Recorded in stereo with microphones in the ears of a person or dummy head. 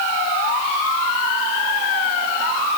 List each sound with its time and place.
Only background noise.